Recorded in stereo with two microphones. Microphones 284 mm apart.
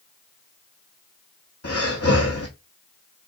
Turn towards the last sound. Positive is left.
turn(degrees=55)  # may be behind; listen again after turning